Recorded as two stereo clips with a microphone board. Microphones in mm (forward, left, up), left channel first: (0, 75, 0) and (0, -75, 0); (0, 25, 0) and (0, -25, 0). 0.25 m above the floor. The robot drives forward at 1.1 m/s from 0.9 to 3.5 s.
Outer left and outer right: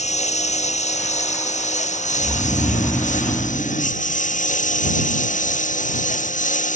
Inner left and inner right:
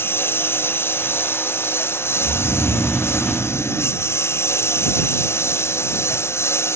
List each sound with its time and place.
0.0 s a lawn mower: 50° left (ahead or behind); by 6.8 s 55° left (ahead or behind)
2.2 s snoring: 30° left (ahead or behind); by 4.0 s 15° left (ahead or behind)